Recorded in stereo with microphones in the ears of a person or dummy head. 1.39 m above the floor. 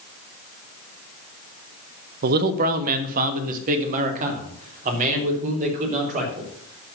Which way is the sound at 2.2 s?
55° right (ahead or behind).